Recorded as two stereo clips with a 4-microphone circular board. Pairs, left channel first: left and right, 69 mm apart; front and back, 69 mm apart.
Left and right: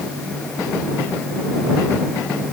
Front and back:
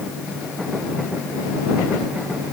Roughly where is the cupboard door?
I don't hear a cupboard door.